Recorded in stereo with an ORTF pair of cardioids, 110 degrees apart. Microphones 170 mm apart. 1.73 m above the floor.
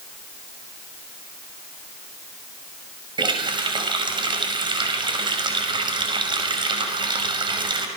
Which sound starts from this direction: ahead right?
A running tap, at 3.2 s.